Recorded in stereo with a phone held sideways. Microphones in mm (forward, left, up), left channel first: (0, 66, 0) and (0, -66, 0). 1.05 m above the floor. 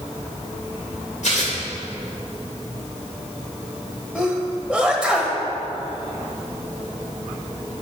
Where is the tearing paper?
70° left (ahead or behind), 2.5 m.